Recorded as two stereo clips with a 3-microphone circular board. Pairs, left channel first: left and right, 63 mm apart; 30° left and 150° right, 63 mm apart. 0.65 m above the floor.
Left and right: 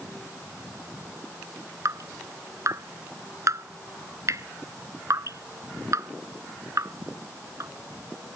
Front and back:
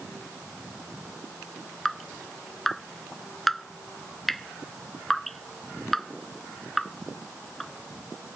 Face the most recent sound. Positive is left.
turn(degrees=-55)